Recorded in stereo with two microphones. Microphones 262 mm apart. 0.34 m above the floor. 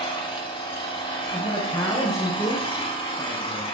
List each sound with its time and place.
0.0 s an engine running: 20° left (ahead or behind), 0.8 m
1.3 s a man speaking: 15° left (ahead or behind), 1.0 m